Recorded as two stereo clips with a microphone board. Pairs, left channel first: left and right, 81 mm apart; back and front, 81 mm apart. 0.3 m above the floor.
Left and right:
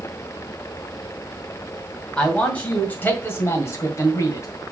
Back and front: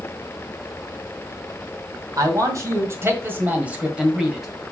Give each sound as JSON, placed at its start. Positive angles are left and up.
{"t": 2.2, "sound": "a man speaking", "azimuth_deg": 15, "distance_m": 2.0}